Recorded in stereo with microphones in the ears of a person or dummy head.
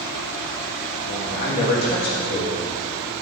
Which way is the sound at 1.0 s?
55° left (ahead or behind).